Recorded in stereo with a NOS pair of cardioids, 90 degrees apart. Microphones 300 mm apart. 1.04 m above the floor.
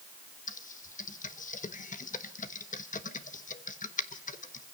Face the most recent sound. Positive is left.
turn(degrees=25)